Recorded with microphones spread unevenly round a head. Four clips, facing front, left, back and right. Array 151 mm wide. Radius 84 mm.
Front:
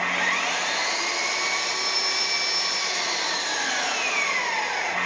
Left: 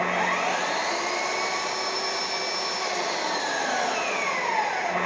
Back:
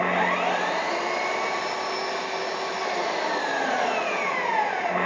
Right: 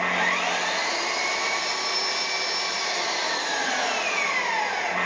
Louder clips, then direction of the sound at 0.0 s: Left 1 dB, back 4 dB; 165° left.